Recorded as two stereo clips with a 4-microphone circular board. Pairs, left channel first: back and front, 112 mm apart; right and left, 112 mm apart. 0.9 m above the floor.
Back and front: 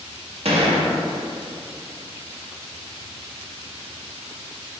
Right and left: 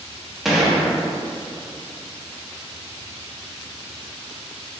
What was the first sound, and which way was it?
A gunshot, straight ahead.